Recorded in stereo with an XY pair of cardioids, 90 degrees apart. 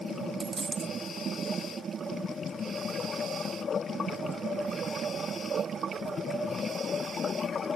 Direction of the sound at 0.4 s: 30° right.